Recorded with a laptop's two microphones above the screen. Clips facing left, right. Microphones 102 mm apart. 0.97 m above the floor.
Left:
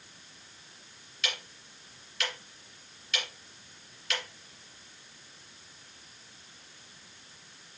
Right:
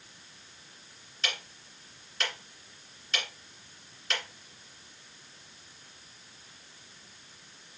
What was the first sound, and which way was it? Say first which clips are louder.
Ticking: right 1 dB; 40° right (ahead or behind).